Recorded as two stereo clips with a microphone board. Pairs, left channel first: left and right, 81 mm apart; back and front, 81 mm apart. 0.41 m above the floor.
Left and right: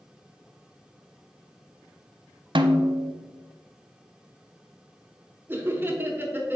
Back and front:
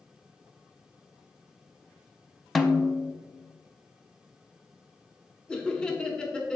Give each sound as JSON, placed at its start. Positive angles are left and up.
{"t": 2.5, "sound": "a snare drum", "azimuth_deg": -95, "distance_m": 0.5}
{"t": 5.5, "sound": "laughter", "azimuth_deg": -110, "distance_m": 1.1}